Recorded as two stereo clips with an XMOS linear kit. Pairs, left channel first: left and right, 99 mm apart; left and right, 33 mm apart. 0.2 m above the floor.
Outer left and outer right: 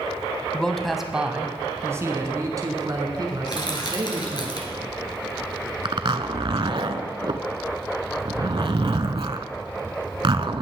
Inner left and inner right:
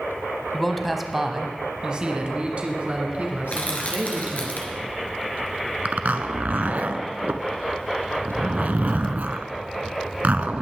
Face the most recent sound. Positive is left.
turn(degrees=-60)  # may be behind; listen again after turning